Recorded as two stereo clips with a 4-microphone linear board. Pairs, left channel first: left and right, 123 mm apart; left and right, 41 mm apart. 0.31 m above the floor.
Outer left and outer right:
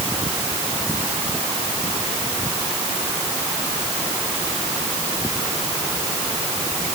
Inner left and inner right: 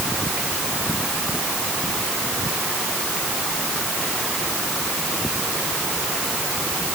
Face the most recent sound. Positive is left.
No sound to turn to.